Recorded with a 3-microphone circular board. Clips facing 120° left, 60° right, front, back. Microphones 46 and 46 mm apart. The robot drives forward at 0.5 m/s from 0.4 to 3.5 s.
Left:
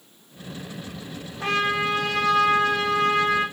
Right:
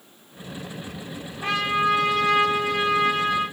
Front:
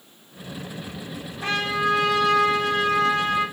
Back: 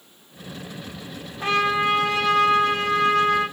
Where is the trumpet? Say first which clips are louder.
Right 1 dB, back 3 dB; 125° left, 4.5 m; by 3.4 s 135° left, 5.5 m.